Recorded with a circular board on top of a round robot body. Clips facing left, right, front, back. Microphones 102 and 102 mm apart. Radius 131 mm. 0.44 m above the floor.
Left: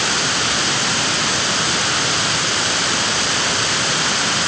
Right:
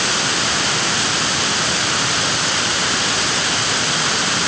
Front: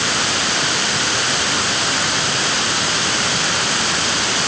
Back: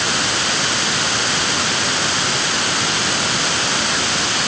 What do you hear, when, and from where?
Only background noise.